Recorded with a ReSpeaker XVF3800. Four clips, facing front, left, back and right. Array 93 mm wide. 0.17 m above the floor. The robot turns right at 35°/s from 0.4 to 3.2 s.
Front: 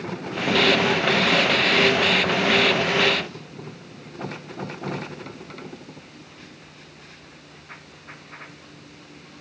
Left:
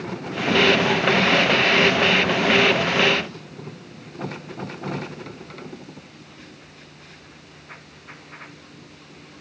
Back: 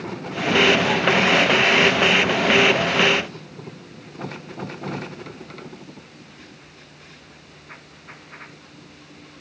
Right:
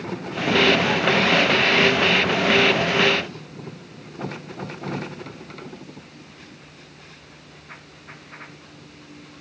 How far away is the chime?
No chime in this recording.